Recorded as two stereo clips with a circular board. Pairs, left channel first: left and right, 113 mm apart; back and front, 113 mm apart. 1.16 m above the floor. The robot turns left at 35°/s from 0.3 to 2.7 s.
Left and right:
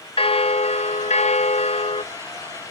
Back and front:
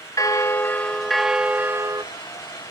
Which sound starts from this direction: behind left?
A bell, at 0.2 s.